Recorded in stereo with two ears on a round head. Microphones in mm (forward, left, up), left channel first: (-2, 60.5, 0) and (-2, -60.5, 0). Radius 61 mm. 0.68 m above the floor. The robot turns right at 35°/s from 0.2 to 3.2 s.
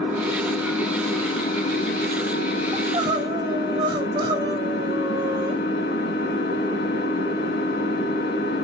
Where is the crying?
30° right (ahead or behind), 1.0 m; by 5.6 s 35° right (ahead or behind), 1.0 m.